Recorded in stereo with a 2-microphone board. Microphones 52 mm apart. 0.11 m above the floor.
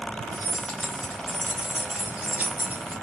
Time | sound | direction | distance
0.3 | keys jangling | 35° left (ahead or behind) | 1.0 m